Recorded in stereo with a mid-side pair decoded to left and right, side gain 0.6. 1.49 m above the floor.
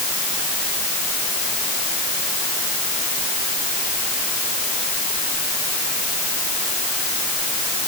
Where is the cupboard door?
No cupboard door in this recording.